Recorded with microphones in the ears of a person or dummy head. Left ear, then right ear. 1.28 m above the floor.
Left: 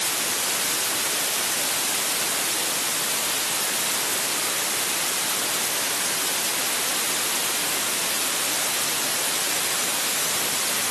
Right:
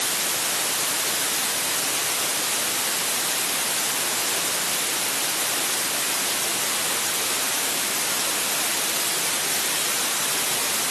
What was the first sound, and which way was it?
Only background noise.